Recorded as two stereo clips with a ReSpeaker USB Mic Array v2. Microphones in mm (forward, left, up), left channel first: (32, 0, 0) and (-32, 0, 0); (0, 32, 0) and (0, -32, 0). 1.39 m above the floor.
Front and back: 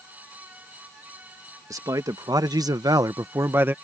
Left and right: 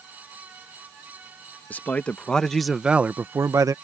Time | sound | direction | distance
1.7 | a man speaking | 150° left | ?